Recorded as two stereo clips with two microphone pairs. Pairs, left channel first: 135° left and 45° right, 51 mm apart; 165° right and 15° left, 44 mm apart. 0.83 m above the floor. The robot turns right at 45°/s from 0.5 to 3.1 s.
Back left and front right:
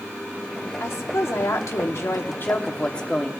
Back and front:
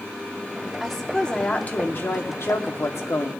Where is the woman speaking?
110° left, 1.3 m; by 3.3 s 150° right, 1.3 m.